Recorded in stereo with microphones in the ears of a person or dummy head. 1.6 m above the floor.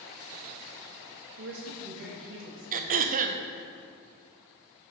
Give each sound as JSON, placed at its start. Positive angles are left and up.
{"t": 1.4, "sound": "a woman speaking", "side_deg": -65, "distance_m": 1.5}
{"t": 2.7, "sound": "throat clearing", "side_deg": -45, "distance_m": 0.6}